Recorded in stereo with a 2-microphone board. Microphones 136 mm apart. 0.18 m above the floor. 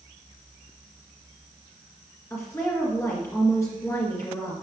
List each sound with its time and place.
2.3 s a woman speaking: 20° left (ahead or behind), 2 m